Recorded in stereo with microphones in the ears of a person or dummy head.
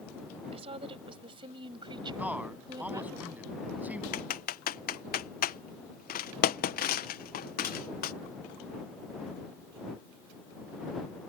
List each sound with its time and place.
0.5 s a woman speaking: 35° right (ahead or behind); by 3.2 s 20° right (ahead or behind)
2.2 s a man speaking: 10° right (ahead or behind)
4.1 s typing on a keyboard: 45° left (ahead or behind)